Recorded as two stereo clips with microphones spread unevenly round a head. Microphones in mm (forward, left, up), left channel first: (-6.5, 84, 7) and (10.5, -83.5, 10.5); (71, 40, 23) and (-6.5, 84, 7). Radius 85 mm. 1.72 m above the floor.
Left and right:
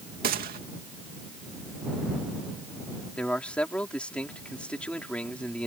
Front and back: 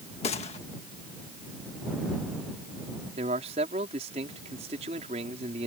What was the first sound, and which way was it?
A gunshot, 45° right.